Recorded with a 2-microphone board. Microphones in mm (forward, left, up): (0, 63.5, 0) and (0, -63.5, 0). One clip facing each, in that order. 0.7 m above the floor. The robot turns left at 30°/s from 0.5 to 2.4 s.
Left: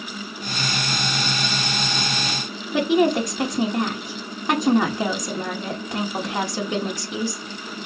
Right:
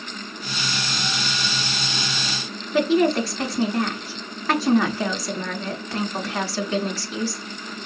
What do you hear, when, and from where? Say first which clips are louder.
2.7 s a woman speaking: even; 15° left (ahead or behind), 1.3 m